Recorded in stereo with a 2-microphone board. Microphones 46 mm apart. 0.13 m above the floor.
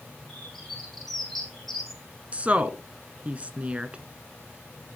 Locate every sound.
0.3 s a bird: 5° left (ahead or behind), 7.5 m
2.3 s a woman speaking: 30° right (ahead or behind), 1.2 m